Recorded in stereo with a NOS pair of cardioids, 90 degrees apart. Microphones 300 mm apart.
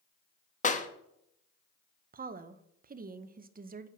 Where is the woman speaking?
30° right, 0.8 m.